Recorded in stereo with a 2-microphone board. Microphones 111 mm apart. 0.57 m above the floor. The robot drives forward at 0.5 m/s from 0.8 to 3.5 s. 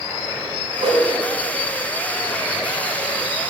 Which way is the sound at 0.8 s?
75° right (ahead or behind).